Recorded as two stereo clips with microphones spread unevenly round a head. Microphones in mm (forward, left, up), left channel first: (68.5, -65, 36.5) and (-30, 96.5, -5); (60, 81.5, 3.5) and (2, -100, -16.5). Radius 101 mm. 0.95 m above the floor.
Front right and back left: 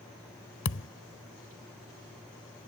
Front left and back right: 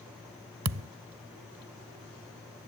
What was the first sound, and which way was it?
A thud, 90° right.